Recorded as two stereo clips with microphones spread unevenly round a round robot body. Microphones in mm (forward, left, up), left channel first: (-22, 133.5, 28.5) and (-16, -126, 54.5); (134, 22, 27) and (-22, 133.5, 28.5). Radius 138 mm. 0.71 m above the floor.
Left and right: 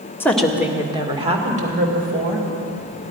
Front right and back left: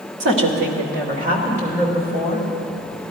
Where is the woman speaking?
170° left, 1.3 m; by 2.5 s 145° right, 3 m.